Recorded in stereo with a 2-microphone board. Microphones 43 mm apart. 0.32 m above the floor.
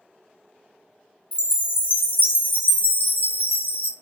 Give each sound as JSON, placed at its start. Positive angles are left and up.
{"t": 1.3, "sound": "a chime", "side_deg": 50, "distance_m": 0.5}